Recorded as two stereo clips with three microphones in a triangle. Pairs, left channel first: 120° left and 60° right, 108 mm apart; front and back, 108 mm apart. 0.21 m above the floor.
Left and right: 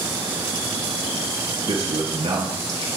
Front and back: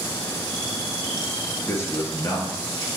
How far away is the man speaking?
About 4 m.